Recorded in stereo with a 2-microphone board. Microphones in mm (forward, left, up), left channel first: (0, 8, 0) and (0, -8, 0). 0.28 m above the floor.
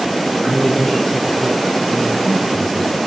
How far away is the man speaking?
About 4 m.